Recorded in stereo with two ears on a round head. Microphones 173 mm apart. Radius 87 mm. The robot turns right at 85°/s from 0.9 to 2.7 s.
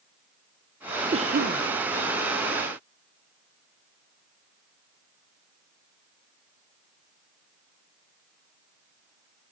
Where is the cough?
150° right, 0.8 m; by 1.6 s 105° right, 0.8 m.